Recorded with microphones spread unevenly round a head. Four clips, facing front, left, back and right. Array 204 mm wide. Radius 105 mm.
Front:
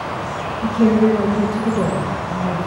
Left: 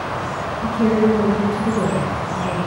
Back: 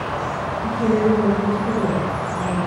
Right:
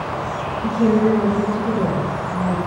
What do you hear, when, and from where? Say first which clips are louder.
0.6 s a woman speaking: even, front 4 dB; 15° left, 2.5 m